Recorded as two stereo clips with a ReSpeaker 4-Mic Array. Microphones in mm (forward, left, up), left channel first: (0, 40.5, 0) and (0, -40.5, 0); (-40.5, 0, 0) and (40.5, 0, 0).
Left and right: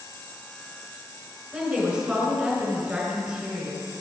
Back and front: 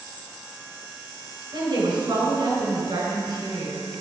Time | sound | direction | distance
1.5 | a woman speaking | 15° right | 4 m